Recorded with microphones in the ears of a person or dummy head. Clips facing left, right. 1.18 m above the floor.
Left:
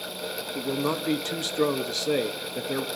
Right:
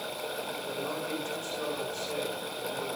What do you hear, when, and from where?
0.6 s a man speaking: 70° left (ahead or behind), 2 m